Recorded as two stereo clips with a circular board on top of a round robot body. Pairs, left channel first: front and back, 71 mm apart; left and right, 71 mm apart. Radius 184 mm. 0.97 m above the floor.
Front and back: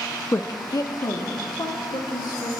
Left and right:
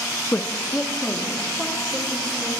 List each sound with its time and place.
0.3 s a woman speaking: 45° left, 0.8 m; by 2.5 s 10° left, 3 m